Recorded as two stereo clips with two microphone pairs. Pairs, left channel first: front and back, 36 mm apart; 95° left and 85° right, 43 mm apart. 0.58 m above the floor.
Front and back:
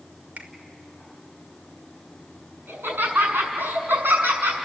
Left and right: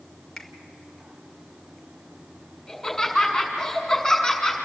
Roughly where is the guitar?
No guitar in this recording.